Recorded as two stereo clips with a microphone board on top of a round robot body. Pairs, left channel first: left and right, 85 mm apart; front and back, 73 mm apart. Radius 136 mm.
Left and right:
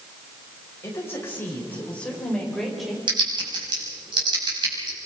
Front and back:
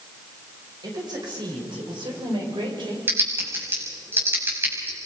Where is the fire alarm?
No fire alarm in this recording.